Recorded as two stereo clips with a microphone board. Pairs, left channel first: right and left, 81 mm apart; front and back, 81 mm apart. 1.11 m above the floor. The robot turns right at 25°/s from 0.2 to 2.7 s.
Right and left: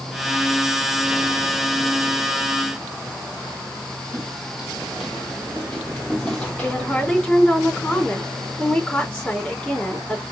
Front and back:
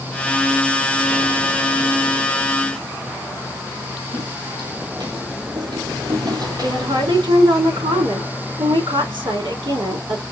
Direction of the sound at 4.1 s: 165° left.